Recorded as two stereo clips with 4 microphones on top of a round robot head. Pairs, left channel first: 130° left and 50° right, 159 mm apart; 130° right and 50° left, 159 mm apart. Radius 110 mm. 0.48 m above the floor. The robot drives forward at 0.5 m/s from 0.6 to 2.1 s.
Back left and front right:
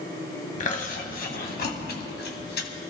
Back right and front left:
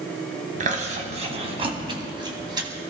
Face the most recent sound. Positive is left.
turn(degrees=110)